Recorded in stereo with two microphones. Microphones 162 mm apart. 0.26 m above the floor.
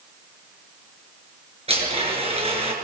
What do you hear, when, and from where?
1.7 s a blender: 40° right (ahead or behind), 5 m